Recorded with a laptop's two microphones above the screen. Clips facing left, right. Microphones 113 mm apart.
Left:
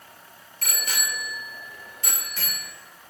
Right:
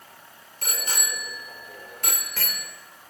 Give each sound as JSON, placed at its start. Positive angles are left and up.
{"t": 0.6, "sound": "a bicycle bell", "side_deg": -30, "distance_m": 2.0}